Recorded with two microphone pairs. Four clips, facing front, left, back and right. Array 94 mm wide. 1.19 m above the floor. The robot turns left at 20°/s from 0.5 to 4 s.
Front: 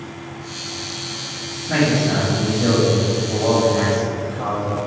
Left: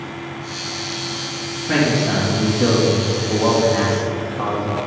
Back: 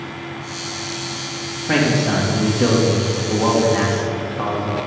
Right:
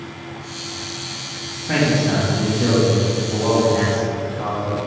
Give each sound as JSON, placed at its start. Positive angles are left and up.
{"t": 1.7, "sound": "a man speaking", "azimuth_deg": -175, "distance_m": 2.0}